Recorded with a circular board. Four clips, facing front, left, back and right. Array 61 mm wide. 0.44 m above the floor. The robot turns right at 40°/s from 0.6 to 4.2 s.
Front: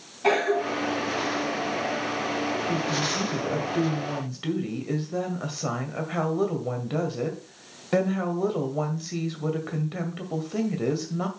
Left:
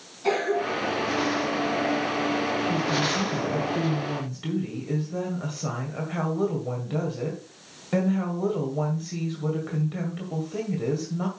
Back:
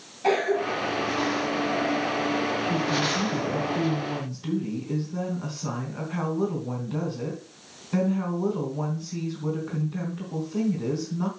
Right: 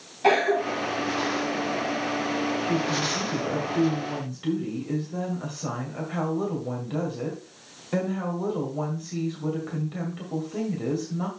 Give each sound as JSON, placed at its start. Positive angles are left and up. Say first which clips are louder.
{"t": 0.2, "sound": "a cough", "louder": "right 3 dB, even", "azimuth_deg": -85, "distance_m": 2.5}
{"t": 2.7, "sound": "a woman speaking", "louder": "left 1 dB, back 2 dB", "azimuth_deg": -55, "distance_m": 2.0}